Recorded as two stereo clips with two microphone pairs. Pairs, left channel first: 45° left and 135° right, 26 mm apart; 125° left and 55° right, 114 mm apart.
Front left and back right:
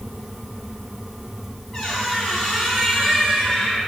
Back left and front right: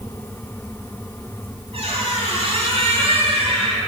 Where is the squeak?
20° right, 2.5 m.